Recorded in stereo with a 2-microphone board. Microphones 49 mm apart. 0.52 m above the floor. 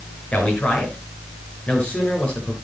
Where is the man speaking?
30° left (ahead or behind), 6 m.